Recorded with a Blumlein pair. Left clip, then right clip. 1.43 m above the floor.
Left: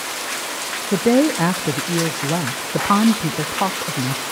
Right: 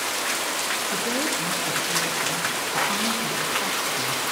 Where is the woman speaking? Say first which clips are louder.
Left 8 dB; 35° left, 0.6 m.